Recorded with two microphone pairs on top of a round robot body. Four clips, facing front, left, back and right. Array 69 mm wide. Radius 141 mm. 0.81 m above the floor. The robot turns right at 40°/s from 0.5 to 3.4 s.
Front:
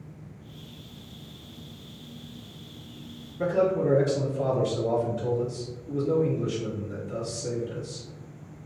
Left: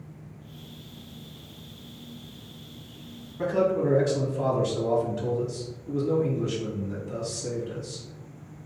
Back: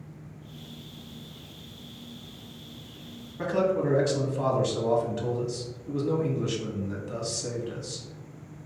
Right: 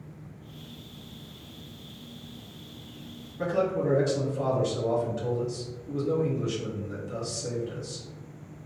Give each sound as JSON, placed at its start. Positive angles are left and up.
{"t": 3.4, "sound": "a man speaking", "azimuth_deg": 170, "distance_m": 1.3}